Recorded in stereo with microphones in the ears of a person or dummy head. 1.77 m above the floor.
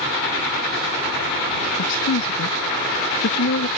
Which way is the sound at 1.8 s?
75° left (ahead or behind).